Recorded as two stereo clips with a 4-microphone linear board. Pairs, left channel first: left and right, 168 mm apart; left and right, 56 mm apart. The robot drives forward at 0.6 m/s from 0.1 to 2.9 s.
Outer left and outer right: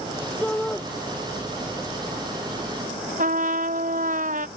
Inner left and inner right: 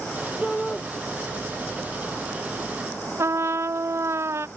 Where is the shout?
5° left (ahead or behind).